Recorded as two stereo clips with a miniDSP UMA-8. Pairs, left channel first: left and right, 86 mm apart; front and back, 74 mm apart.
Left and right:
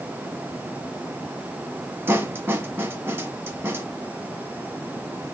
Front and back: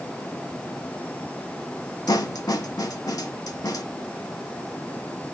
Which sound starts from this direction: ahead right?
A snare drum, at 2.1 s.